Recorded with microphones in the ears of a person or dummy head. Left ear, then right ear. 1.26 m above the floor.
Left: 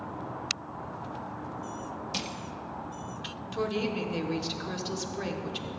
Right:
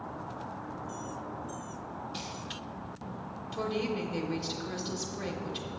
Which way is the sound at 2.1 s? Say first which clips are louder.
Left 8 dB; 65° left (ahead or behind).